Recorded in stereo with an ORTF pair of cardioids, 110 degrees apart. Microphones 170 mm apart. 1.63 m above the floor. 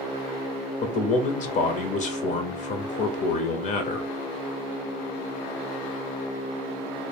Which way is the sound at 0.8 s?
45° left.